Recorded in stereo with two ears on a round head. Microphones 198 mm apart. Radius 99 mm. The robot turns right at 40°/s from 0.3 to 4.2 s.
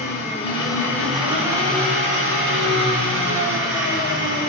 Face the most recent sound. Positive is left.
turn(degrees=-60)